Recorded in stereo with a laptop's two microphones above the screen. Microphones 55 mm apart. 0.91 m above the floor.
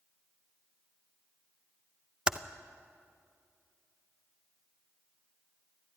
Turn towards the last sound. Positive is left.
turn(degrees=-15)  # may be behind; listen again after turning